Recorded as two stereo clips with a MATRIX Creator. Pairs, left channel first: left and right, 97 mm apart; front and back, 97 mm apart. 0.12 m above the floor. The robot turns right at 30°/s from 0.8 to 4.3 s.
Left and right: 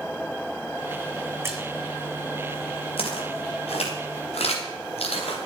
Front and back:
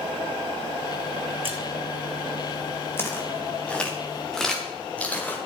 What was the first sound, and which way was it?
A splash, 155° right.